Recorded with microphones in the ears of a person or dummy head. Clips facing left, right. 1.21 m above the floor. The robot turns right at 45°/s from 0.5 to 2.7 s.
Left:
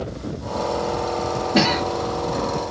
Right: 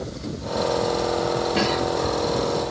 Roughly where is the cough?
Left.